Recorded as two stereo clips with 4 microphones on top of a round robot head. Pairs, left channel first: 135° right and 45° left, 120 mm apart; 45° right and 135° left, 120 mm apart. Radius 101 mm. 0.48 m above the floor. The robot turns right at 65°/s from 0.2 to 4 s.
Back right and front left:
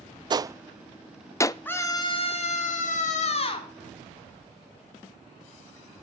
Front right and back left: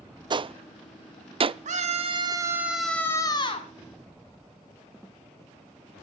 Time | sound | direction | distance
0.3 | a gunshot | 90° left | 0.6 m
1.6 | a scream | 150° left | 4.5 m